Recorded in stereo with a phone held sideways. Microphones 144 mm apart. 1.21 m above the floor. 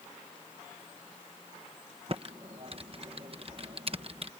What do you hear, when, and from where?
2.1 s typing on a keyboard: 45° right (ahead or behind)